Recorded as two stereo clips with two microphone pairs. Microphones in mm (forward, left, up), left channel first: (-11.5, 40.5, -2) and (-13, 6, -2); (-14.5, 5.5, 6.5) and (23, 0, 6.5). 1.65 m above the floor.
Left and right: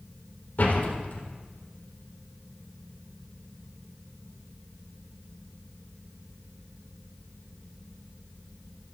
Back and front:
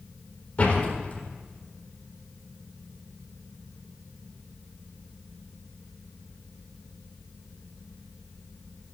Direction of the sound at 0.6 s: 115° left.